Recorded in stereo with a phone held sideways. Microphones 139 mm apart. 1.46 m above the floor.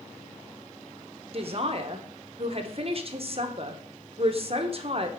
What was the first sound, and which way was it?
A man speaking, 45° right (ahead or behind).